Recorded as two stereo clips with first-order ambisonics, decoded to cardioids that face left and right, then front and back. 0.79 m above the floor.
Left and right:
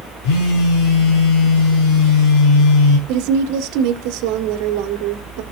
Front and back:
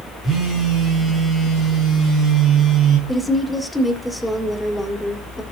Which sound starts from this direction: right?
A woman speaking, at 3.1 s.